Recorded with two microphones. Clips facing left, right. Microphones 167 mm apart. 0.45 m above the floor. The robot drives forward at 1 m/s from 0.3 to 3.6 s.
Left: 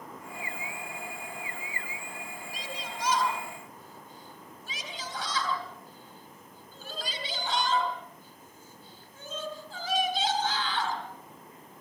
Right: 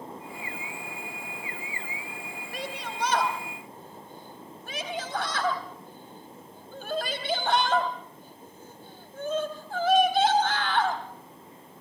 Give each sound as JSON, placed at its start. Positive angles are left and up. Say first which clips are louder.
{"t": 2.5, "sound": "a shout", "louder": "right 6 dB", "side_deg": -65, "distance_m": 3.0}